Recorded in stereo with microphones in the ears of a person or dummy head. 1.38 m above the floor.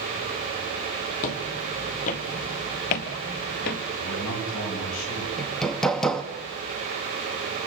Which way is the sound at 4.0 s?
80° left.